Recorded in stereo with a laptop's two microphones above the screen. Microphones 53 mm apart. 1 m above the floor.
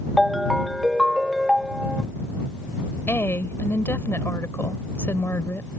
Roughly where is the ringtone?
Centre.